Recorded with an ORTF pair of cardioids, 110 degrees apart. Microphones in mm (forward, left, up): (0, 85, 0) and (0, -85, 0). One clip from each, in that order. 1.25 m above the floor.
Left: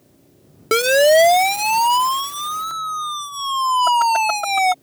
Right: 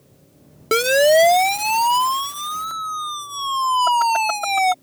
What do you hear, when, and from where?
0.7 s a siren: 10° left